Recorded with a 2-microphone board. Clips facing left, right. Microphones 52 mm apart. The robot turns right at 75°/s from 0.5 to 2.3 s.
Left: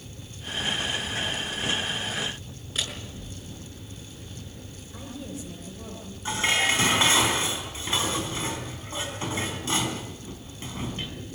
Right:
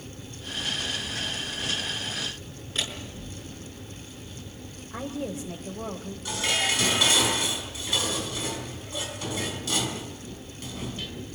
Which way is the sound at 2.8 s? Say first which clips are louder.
Right 1 dB; centre (ahead or behind).